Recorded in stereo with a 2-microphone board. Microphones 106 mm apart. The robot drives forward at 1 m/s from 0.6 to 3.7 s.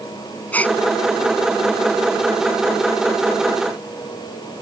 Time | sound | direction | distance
0.5 | a gasp | 15° left (ahead or behind) | ?